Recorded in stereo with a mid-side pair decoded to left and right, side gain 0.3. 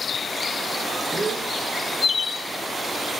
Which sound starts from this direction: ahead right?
A gasp, at 1.1 s.